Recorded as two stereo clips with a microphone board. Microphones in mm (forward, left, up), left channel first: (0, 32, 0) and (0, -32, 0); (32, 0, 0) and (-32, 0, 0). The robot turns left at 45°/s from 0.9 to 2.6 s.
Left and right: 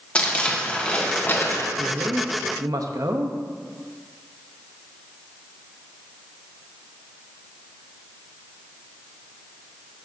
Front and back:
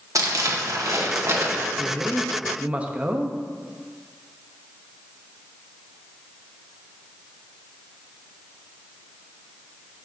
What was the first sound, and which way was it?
Crumpling, 160° left.